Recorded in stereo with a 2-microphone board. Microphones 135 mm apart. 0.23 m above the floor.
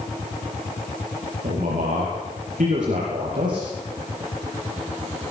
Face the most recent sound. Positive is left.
turn(degrees=-75)  # may be behind; listen again after turning